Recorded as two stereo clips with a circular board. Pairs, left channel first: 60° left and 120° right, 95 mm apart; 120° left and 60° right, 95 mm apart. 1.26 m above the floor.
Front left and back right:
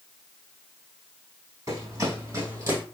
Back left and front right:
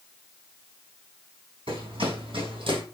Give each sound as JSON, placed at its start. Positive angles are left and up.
{"t": 1.7, "sound": "running footsteps", "azimuth_deg": -70, "distance_m": 4.5}